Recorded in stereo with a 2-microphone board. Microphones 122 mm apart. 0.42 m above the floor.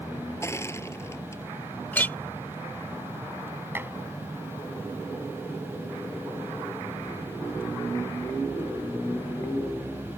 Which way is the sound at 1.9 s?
15° left (ahead or behind).